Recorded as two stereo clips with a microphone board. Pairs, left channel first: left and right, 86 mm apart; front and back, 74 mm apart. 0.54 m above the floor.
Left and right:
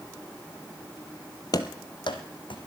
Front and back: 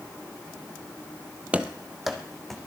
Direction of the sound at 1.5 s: 115° left.